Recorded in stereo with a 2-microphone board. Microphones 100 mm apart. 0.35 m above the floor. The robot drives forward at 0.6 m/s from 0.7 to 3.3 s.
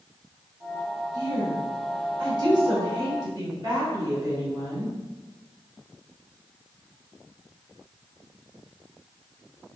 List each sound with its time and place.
1.1 s a woman speaking: 40° right (ahead or behind), 1.4 m